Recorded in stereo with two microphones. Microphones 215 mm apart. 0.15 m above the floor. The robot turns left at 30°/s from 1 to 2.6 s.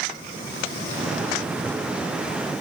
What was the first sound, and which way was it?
Only background noise.